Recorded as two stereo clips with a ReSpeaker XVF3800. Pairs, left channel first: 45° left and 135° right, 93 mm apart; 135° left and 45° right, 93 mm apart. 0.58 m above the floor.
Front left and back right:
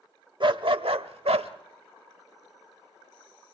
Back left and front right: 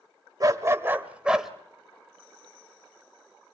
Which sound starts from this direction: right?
A dog barking, at 0.4 s.